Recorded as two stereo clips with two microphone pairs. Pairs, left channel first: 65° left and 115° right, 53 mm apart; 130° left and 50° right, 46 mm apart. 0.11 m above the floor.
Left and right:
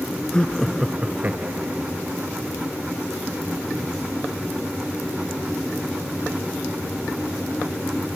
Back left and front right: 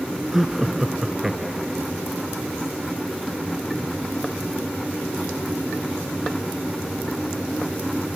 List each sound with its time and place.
0.3 s laughter: 25° left, 1.4 m; by 1.9 s 135° right, 2 m